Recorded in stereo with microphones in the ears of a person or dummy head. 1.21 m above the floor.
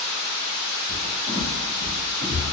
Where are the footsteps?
25° right (ahead or behind), 1.8 m; by 2.4 s 55° right (ahead or behind), 2 m.